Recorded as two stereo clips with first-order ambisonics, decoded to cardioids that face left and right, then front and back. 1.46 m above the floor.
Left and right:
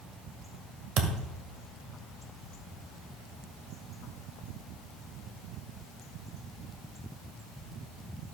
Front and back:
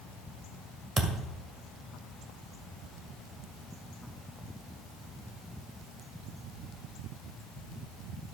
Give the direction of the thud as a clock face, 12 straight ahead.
4 o'clock.